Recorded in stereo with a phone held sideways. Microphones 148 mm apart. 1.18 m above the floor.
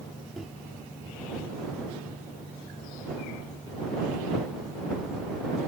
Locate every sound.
0.4 s a microwave: centre (ahead or behind)